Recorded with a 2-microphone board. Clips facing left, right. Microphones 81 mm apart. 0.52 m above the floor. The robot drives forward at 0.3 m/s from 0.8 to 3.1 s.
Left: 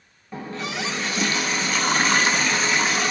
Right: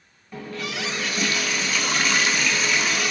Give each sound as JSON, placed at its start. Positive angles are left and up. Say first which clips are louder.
{"t": 0.3, "sound": "a running tap", "louder": "left 1 dB", "side_deg": 25, "distance_m": 0.7}